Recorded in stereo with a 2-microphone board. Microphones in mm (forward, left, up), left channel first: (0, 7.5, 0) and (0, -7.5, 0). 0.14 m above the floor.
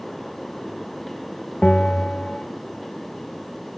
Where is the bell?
70° left (ahead or behind), 0.7 m.